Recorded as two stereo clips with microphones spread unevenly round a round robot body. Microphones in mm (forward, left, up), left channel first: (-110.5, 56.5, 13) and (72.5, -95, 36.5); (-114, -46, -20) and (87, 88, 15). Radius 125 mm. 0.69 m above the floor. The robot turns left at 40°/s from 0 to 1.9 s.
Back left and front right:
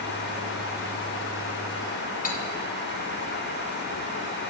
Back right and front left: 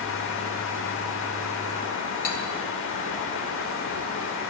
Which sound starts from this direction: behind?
Cutlery clinking, at 2.2 s.